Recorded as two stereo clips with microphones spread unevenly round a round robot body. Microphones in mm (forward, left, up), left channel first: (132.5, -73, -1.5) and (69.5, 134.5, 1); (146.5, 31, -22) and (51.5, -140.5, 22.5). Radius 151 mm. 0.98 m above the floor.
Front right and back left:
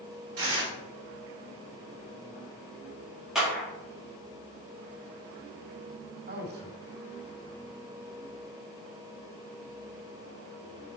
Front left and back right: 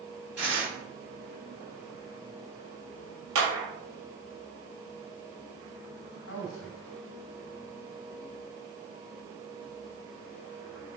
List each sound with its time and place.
0.4 s tearing paper: 155° left, 3.5 m
3.4 s a clap: 165° right, 1.8 m
6.3 s a man speaking: 65° left, 1.9 m